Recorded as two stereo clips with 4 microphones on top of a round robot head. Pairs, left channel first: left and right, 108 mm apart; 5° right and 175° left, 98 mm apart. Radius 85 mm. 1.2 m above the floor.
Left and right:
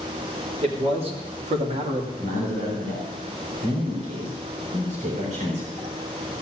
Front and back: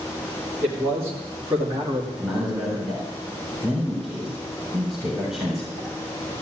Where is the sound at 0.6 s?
115° right, 4 m.